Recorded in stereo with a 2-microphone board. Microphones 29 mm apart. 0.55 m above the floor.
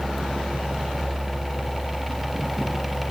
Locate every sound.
Only background noise.